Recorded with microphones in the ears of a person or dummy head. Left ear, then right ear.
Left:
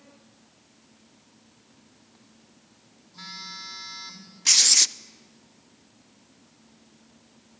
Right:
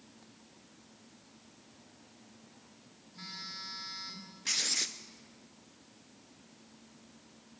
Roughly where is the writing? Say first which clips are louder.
Left 13 dB; left.